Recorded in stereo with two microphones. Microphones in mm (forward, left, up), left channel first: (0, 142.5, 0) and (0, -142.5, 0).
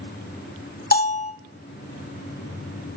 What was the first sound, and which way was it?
A bell, 35° left (ahead or behind).